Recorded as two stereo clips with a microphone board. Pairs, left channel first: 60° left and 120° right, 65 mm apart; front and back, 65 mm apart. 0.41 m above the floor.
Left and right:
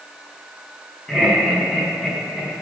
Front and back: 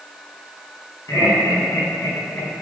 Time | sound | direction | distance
1.1 | laughter | 25° right | 4 m